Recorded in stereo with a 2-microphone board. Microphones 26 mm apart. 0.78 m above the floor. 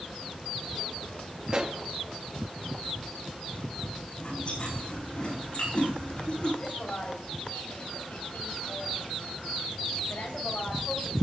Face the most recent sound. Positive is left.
turn(degrees=85)